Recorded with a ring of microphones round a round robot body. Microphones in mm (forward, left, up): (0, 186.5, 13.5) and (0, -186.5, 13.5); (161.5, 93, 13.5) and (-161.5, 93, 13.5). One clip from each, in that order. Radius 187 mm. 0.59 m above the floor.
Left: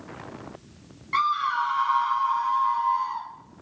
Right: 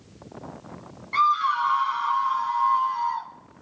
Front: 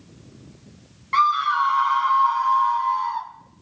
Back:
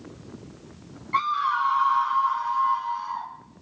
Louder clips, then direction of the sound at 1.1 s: Right 3 dB, front 5 dB; 10° left.